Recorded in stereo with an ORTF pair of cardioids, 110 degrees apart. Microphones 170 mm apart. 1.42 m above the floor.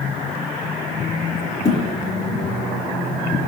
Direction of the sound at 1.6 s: 20° left.